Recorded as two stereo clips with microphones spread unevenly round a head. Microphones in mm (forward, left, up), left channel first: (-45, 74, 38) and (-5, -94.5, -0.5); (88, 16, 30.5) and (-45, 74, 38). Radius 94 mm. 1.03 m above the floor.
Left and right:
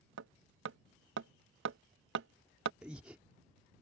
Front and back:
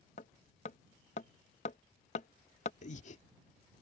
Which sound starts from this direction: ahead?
Breathing, at 2.8 s.